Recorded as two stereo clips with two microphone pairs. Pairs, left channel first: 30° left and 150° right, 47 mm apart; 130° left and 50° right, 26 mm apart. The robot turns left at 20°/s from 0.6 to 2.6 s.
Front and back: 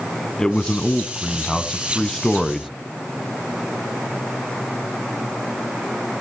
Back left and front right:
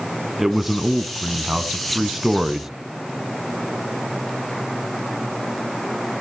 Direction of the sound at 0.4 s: 10° right.